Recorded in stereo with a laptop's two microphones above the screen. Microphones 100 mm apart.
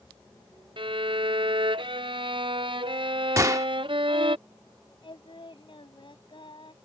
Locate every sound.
0.8 s a violin: 60° right (ahead or behind)
3.4 s a gunshot: 30° right (ahead or behind)
5.0 s singing: 60° left (ahead or behind)